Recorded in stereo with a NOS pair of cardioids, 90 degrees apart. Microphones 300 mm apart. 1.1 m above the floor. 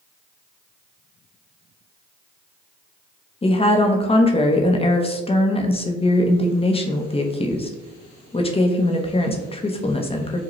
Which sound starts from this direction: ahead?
A woman speaking, at 3.4 s.